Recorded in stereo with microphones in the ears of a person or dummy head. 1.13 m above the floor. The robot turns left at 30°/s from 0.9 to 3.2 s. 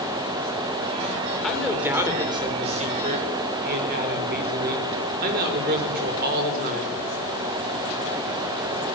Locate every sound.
1.4 s a man speaking: straight ahead, 4.5 m; by 7.0 s 50° right, 4.5 m